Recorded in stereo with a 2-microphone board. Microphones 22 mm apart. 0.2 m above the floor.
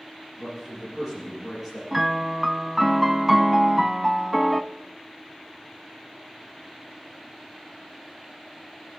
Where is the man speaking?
10° right (ahead or behind), 6 m.